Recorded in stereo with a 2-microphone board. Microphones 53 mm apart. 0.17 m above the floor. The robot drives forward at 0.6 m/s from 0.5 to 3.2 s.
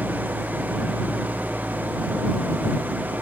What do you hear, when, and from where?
0.0 s an engine running: 30° right (ahead or behind)